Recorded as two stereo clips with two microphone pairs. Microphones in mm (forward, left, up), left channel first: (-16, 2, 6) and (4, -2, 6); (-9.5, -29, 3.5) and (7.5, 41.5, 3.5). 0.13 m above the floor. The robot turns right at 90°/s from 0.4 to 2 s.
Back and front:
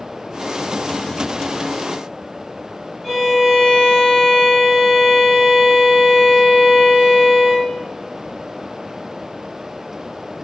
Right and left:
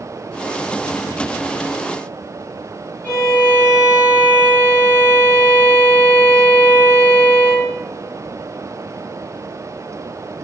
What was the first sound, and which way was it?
A violin, 105° right.